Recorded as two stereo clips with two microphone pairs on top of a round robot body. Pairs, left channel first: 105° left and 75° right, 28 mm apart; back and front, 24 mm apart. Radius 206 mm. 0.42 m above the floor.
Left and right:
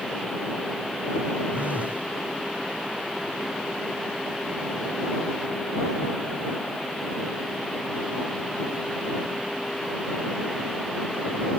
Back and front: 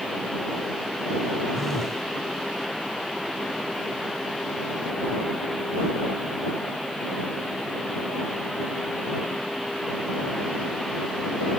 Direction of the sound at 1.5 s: 100° right.